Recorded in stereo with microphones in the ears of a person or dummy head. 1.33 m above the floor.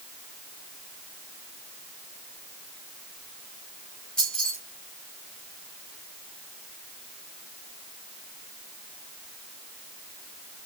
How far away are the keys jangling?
About 2.5 m.